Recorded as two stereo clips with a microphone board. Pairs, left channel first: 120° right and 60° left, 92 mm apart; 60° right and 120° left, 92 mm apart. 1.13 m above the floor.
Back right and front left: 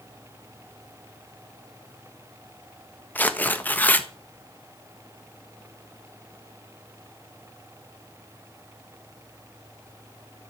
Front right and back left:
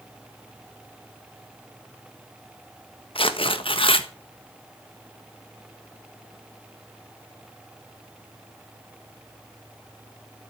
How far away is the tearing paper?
About 1.4 m.